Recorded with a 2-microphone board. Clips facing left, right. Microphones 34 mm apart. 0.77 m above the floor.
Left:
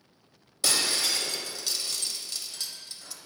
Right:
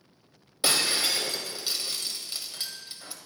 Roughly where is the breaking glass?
Right.